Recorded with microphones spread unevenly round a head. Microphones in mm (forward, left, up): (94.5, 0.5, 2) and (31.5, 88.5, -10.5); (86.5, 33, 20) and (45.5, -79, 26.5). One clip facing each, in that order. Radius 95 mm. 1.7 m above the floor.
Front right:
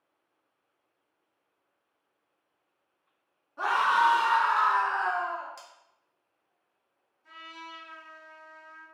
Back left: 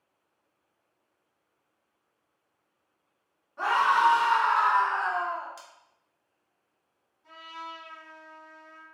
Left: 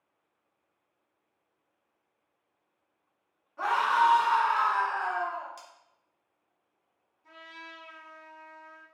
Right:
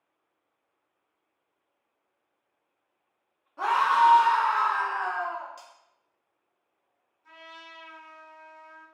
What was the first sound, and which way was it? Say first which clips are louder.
A scream: back left 1 dB, right 3 dB; 100° right.